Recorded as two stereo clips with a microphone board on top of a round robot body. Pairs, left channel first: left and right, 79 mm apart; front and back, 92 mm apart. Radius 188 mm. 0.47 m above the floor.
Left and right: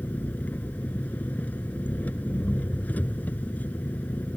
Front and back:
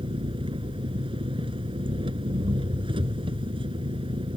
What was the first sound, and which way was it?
An engine running, 160° left.